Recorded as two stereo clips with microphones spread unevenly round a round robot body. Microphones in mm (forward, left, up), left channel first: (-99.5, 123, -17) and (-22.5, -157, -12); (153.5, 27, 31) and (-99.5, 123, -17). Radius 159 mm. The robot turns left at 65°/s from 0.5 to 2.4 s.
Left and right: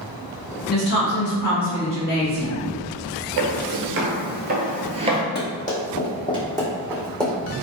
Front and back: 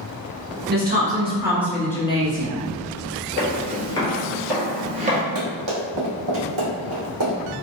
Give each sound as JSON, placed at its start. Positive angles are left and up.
{"t": 0.7, "sound": "a woman speaking", "azimuth_deg": 150, "distance_m": 1.2}
{"t": 3.4, "sound": "footsteps", "azimuth_deg": -50, "distance_m": 1.1}
{"t": 5.3, "sound": "running footsteps", "azimuth_deg": 160, "distance_m": 1.9}